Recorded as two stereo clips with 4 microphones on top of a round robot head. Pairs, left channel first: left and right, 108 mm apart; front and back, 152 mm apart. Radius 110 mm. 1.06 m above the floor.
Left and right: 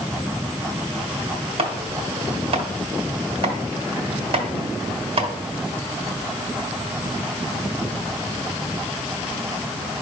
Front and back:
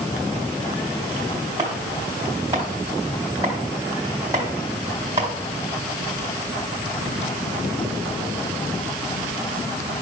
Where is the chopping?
105° right, 1.6 m.